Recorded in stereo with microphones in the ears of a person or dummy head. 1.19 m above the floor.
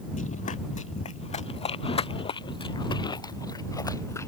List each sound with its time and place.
0.1 s running footsteps: 40° left (ahead or behind); by 4.3 s 20° left (ahead or behind)